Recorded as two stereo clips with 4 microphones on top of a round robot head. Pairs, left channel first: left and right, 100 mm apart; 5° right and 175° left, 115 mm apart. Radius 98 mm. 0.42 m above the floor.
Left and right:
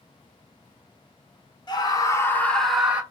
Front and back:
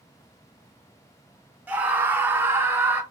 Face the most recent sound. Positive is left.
turn(degrees=-140)